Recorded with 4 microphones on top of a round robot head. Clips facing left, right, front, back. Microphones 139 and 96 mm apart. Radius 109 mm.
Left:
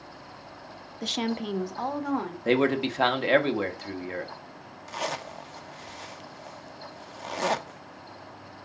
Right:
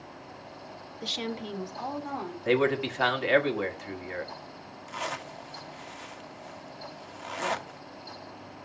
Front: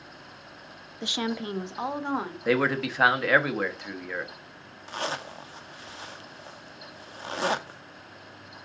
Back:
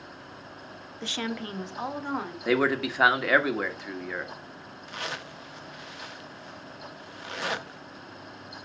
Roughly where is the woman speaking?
Left.